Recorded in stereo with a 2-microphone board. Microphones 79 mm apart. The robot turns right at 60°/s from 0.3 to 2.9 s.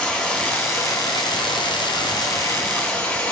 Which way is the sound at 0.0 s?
10° left.